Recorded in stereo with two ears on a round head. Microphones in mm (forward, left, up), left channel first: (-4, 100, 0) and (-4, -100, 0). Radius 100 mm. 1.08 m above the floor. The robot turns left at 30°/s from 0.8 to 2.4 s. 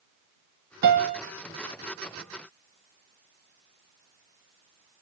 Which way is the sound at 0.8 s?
45° right (ahead or behind).